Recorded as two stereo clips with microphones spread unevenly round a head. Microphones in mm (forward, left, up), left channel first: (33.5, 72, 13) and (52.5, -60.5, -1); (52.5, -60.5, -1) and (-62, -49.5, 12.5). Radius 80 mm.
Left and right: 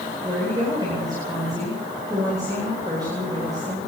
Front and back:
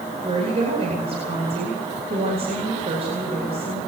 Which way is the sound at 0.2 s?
150° right.